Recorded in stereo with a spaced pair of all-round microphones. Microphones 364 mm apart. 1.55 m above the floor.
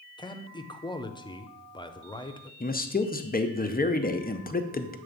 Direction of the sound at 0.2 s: 15° left (ahead or behind).